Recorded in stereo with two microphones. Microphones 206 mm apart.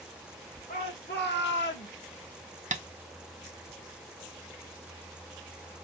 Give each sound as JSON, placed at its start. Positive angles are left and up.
{"t": 0.7, "sound": "a shout", "side_deg": 50, "distance_m": 2.0}
{"t": 2.7, "sound": "tapping", "side_deg": -35, "distance_m": 0.6}